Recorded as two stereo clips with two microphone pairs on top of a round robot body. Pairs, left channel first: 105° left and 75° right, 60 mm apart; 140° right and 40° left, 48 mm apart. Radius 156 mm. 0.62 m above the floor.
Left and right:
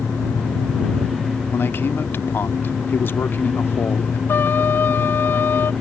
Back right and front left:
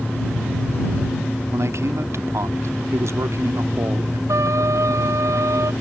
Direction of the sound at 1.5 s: 50° left.